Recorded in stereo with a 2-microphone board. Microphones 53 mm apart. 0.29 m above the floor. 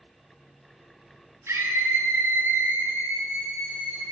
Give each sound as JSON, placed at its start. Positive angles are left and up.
{"t": 1.5, "sound": "a scream", "side_deg": -50, "distance_m": 2.5}